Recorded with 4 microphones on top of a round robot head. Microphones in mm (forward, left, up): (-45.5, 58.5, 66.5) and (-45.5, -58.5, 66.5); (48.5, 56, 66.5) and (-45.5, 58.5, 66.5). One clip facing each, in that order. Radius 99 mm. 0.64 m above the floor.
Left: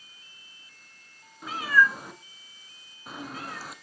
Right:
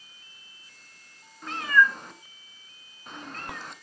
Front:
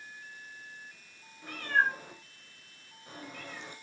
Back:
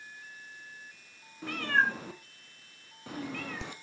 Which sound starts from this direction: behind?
A cat meowing, at 1.4 s.